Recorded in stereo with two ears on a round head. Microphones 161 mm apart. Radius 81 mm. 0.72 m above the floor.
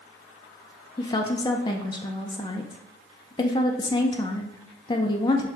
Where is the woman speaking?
25° left (ahead or behind), 0.5 m.